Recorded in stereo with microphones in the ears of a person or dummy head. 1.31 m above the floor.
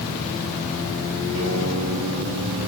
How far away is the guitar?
About 9.5 m.